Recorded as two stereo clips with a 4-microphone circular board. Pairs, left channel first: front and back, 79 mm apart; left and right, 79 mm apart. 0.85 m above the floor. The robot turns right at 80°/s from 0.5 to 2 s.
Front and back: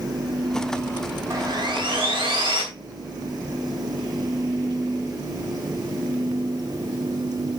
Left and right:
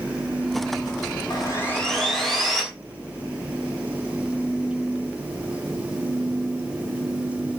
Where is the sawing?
125° left, 4 m; by 2.6 s straight behind, 4 m.